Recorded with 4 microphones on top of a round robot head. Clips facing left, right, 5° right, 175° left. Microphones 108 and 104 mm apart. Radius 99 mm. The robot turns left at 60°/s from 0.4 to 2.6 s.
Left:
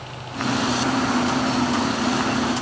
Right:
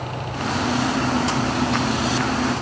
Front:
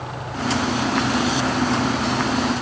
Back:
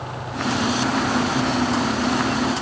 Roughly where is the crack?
No crack in this recording.